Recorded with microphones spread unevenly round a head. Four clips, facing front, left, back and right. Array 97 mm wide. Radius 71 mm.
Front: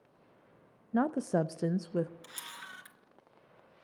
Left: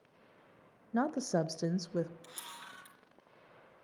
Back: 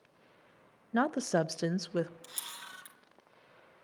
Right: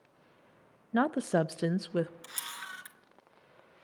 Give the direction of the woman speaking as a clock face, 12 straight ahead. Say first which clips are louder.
Right 4 dB, even; 5 o'clock.